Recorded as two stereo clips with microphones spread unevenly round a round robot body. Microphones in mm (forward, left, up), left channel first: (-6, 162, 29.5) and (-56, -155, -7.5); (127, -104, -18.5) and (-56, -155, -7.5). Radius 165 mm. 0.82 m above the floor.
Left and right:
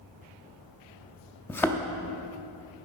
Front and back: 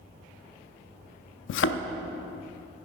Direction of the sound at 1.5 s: 5° right.